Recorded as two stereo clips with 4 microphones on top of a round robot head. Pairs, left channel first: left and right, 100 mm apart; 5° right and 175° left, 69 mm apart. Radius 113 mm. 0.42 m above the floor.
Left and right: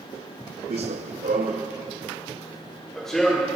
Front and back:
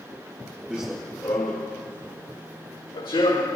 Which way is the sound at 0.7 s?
105° right.